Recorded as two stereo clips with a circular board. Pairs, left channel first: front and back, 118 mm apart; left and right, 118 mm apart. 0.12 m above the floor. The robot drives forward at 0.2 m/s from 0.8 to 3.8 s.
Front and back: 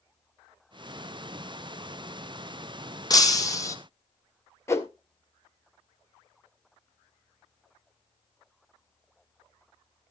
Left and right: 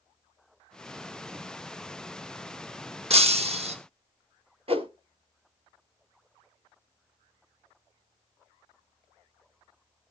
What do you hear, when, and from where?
3.1 s breaking glass: 60° right, 1.6 m; by 3.8 s 65° right, 1.6 m
4.7 s a whoosh: 65° right, 1.1 m